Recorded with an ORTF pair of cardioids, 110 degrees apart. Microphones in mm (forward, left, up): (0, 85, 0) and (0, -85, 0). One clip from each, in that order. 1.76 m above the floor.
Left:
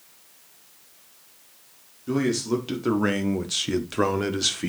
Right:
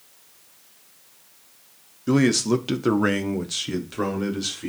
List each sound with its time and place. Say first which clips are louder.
2.1 s a man speaking: right 4 dB; 50° right, 1.2 m; by 4.7 s 40° left, 1.5 m